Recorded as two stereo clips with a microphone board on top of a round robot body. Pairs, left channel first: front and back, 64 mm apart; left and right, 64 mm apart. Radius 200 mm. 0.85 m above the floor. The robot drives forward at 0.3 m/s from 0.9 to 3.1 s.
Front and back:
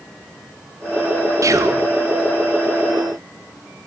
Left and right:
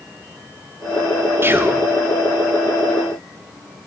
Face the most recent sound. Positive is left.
turn(degrees=-160)